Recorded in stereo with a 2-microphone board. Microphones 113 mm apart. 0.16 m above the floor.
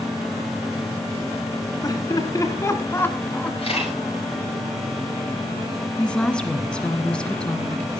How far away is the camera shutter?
About 9 m.